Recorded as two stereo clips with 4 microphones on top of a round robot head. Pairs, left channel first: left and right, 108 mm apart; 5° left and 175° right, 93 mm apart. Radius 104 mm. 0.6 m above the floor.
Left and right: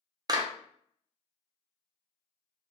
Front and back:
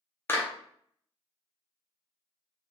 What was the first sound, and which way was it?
A clap, 55° right.